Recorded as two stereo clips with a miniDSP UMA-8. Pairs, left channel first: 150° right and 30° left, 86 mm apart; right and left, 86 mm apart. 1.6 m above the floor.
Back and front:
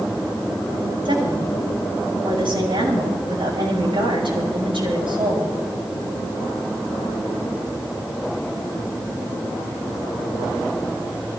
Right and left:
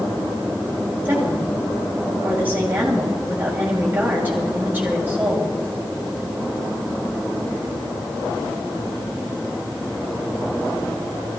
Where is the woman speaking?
20° left, 8 m.